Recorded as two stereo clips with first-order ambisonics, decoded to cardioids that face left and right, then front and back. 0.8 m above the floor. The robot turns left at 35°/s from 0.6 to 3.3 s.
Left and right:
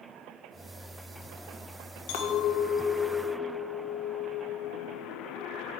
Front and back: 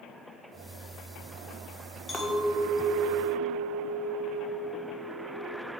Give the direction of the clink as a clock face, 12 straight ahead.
9 o'clock.